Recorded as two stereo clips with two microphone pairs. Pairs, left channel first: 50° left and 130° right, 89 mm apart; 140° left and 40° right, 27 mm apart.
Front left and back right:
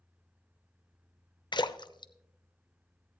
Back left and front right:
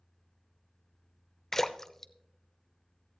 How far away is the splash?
About 0.6 m.